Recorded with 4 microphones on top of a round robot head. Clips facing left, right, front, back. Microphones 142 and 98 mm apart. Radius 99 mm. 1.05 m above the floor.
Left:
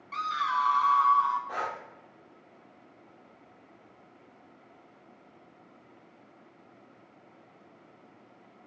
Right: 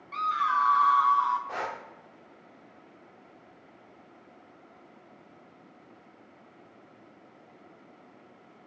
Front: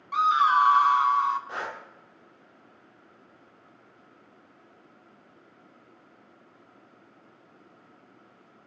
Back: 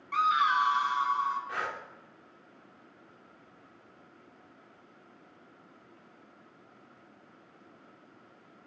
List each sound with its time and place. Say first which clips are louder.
0.1 s a scream: right 2 dB, front 5 dB; 65° left, 0.6 m; by 1.4 s straight ahead, 0.8 m
1.5 s breathing: even, front 1 dB; 15° right, 0.6 m